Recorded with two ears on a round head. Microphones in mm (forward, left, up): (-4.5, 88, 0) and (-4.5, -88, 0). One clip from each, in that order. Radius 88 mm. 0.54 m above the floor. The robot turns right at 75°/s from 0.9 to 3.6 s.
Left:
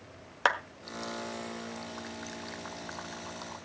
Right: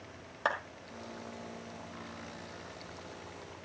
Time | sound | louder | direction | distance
0.5 | a clap | left 5 dB | 60° left (ahead or behind) | 1.4 m